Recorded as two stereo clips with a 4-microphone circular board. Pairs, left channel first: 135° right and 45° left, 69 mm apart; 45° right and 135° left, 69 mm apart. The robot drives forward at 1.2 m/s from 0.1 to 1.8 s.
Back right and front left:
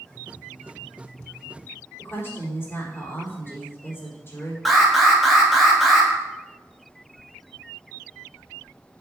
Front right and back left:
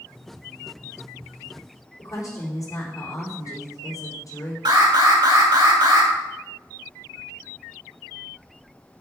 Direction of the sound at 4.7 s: 135° left.